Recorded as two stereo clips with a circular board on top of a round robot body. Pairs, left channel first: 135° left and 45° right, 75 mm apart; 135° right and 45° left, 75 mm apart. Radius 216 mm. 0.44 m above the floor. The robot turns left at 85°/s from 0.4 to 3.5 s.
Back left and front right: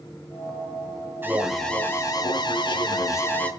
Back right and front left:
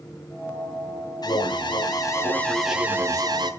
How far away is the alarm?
About 1.9 m.